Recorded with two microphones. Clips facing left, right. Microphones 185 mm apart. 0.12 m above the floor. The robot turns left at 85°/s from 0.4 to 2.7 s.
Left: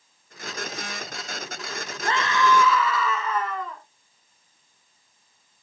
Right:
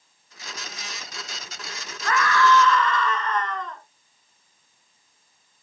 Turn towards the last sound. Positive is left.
turn(degrees=10)